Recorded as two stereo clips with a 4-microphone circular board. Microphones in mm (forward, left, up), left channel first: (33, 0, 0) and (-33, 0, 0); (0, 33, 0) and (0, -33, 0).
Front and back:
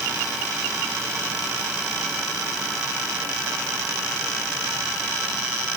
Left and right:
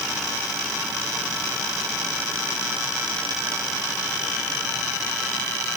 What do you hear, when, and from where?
Only background noise.